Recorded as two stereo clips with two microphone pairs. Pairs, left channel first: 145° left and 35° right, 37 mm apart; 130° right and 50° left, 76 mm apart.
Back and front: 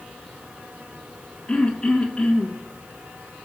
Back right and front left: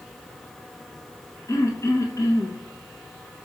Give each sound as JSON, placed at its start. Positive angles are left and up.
{"t": 1.5, "sound": "throat clearing", "azimuth_deg": -155, "distance_m": 1.4}